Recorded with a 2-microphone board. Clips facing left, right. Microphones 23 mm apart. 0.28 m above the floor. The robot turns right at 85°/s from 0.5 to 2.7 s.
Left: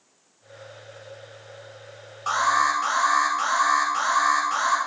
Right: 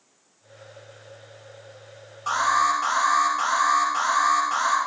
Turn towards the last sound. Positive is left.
turn(degrees=0)  # may be behind; listen again after turning